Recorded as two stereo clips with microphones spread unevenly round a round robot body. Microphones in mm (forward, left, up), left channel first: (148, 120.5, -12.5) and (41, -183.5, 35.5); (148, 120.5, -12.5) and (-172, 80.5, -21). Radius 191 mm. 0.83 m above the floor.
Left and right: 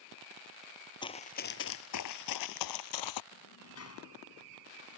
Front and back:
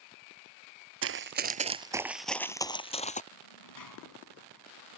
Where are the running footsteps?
155° left; by 3.2 s 70° left.